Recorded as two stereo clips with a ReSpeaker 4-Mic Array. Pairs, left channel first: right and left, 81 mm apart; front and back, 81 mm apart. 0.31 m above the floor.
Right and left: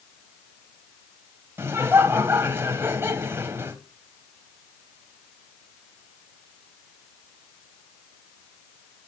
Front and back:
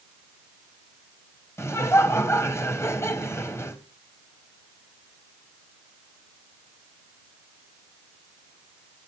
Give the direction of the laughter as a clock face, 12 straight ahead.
11 o'clock.